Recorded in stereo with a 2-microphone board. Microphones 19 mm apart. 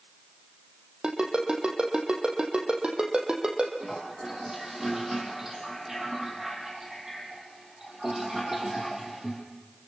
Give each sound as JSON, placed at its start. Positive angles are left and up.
{"t": 1.0, "sound": "a ringtone", "side_deg": -60, "distance_m": 4.0}
{"t": 3.8, "sound": "a toilet flushing", "side_deg": -25, "distance_m": 5.5}